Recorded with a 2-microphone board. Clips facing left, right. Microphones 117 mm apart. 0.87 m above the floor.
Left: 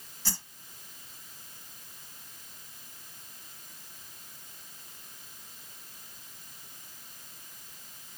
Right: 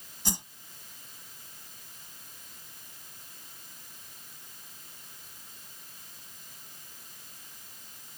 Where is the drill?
No drill in this recording.